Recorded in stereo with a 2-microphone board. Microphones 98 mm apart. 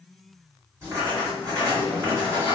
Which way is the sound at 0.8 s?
30° right (ahead or behind).